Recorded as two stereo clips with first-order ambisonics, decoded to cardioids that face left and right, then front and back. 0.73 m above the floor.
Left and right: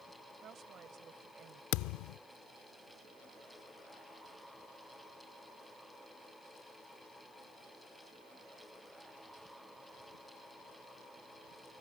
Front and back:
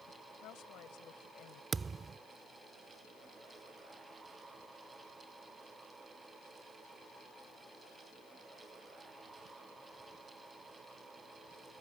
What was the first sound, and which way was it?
A woman speaking, 35° right.